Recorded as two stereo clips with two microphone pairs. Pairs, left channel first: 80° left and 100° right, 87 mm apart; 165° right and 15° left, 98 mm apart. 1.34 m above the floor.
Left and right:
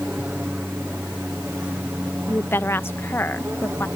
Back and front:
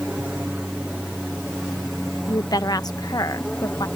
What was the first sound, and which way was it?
An aircraft, 45° right.